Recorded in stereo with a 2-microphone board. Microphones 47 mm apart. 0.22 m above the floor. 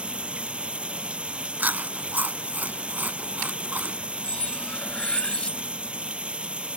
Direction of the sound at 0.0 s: 25° right (ahead or behind).